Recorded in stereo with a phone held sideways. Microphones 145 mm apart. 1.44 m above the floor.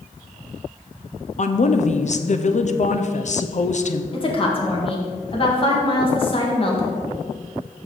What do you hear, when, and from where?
1.4 s a woman speaking: 55° left (ahead or behind), 0.6 m
4.1 s a woman speaking: 40° left (ahead or behind), 1.7 m